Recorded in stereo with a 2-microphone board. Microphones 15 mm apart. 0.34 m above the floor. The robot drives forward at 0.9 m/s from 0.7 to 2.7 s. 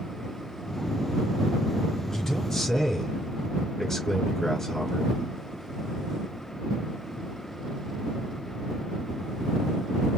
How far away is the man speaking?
About 3.5 m.